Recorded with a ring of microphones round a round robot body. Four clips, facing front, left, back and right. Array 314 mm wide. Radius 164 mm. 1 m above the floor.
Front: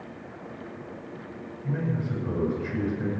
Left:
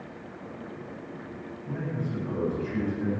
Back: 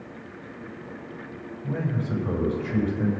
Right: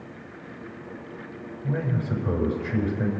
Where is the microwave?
I don't hear a microwave.